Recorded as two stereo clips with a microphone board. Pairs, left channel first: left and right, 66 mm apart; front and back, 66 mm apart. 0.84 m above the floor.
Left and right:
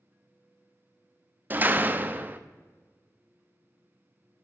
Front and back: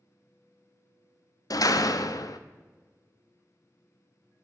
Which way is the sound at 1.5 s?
25° right.